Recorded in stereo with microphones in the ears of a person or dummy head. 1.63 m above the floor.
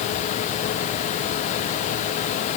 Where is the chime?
I don't hear a chime.